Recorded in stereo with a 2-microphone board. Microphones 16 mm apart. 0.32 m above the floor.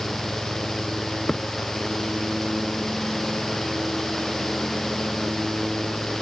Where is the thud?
5° left (ahead or behind).